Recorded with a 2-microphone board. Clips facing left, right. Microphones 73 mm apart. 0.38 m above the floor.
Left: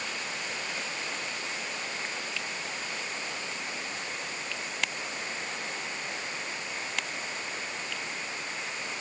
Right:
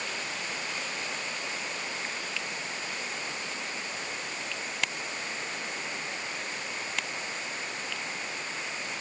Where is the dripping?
No dripping in this recording.